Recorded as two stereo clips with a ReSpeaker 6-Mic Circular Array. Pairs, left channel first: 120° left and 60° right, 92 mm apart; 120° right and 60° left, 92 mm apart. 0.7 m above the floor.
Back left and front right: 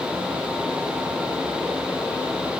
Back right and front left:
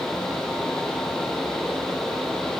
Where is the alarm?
I don't hear an alarm.